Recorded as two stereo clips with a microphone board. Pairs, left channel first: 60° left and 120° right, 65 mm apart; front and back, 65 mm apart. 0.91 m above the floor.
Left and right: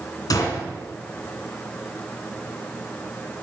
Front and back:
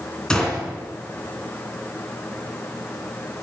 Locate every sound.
0.3 s a gunshot: 80° left, 2.5 m